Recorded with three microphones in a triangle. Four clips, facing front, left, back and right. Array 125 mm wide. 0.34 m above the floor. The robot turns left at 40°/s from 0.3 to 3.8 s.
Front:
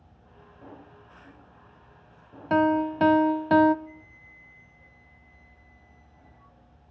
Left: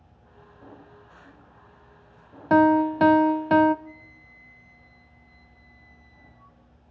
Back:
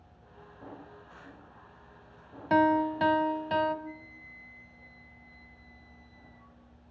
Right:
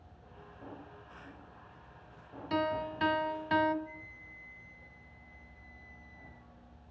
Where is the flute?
80° left, 3 m.